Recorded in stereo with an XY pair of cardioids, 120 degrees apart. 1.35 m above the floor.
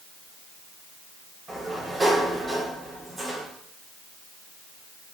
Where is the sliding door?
20° right, 5 m.